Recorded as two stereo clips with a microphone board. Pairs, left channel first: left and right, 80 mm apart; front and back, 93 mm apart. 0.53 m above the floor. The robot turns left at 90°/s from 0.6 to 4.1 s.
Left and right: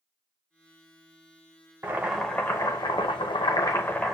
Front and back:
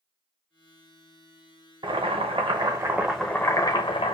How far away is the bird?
I don't hear a bird.